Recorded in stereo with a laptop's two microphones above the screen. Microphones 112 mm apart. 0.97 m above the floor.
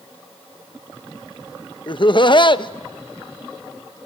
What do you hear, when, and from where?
1.9 s laughter: 45° left (ahead or behind), 0.6 m